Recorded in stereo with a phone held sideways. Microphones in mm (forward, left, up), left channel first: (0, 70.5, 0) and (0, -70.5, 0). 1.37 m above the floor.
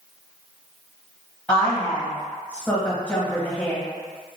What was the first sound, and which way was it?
A woman speaking, 10° left (ahead or behind).